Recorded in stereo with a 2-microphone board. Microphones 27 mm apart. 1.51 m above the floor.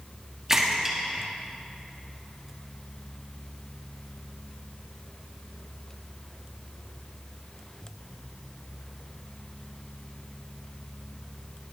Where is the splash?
20° right (ahead or behind), 2 m.